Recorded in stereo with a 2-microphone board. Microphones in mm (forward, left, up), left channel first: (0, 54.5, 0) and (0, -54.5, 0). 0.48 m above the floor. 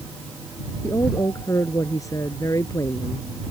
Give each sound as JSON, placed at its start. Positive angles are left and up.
{"t": 0.8, "sound": "a woman speaking", "side_deg": 30}